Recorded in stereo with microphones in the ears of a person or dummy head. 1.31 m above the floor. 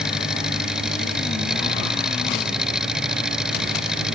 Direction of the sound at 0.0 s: 5° right (ahead or behind).